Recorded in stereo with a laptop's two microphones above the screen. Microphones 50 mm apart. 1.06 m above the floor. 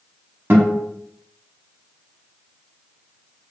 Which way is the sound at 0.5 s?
45° right (ahead or behind).